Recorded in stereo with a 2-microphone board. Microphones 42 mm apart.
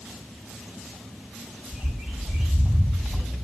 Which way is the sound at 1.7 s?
Centre (ahead or behind).